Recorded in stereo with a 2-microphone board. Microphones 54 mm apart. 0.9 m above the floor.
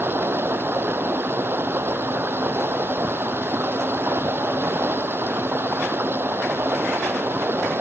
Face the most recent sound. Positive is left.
turn(degrees=-45)  # may be behind; listen again after turning